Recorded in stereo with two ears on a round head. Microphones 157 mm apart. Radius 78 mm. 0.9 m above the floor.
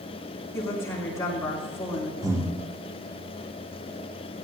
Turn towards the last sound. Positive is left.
turn(degrees=-20)  # may be behind; listen again after turning